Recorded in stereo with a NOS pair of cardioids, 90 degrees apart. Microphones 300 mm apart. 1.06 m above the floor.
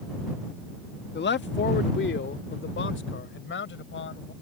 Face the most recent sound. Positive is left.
turn(degrees=45)